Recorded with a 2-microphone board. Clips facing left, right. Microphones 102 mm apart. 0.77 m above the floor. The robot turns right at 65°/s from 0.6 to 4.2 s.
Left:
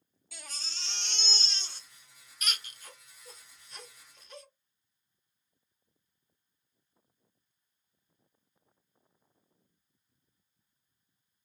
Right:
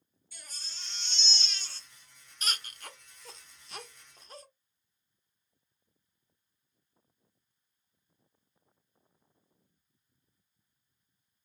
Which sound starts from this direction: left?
A baby crying, at 0.3 s.